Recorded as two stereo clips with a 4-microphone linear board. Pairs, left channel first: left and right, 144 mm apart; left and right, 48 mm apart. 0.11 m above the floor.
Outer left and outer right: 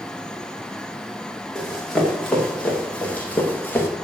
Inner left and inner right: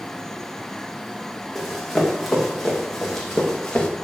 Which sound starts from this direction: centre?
Running footsteps, at 1.6 s.